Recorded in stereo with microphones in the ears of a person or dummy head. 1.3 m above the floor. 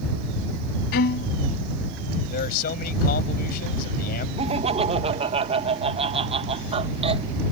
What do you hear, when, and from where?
0.9 s a violin: 55° left (ahead or behind)
2.3 s a man speaking: 50° left (ahead or behind)
4.4 s laughter: 30° right (ahead or behind)